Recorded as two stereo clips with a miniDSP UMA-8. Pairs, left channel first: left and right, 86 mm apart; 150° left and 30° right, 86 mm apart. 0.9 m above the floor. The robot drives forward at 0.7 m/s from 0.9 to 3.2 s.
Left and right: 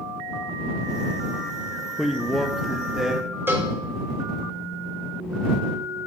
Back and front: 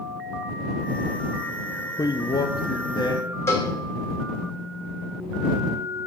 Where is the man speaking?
Straight behind, 0.5 m.